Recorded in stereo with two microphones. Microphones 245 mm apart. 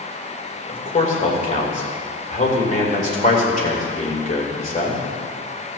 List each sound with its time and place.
0.7 s a man speaking: 30° left (ahead or behind), 2.5 m